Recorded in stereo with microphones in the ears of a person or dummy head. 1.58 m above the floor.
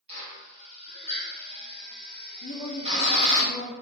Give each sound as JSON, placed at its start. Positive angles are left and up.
{"t": 0.1, "sound": "a drill", "side_deg": -35, "distance_m": 1.7}
{"t": 2.4, "sound": "a woman speaking", "side_deg": 40, "distance_m": 2.5}